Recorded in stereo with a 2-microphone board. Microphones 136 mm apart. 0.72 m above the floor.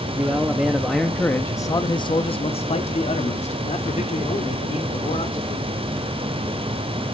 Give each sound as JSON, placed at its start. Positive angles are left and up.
{"t": 0.1, "sound": "a man speaking", "side_deg": -15, "distance_m": 1.0}